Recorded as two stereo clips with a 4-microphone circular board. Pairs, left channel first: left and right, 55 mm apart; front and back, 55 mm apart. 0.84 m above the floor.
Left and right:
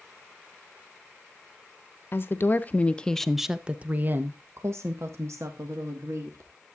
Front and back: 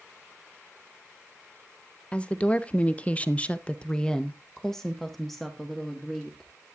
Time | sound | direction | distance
2.1 | a woman speaking | 65° left | 0.9 m